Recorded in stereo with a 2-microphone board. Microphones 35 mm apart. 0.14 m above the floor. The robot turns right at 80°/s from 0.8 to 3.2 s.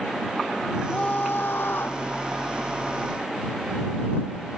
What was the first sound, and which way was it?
A scream, 30° left.